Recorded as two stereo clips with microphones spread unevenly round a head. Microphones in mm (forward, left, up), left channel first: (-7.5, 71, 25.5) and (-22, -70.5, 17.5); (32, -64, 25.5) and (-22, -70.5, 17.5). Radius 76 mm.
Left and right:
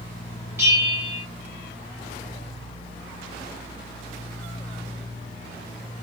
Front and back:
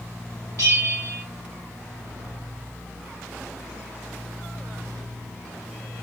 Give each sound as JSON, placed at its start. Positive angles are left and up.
{"t": 0.6, "sound": "a bell", "azimuth_deg": -170, "distance_m": 1.3}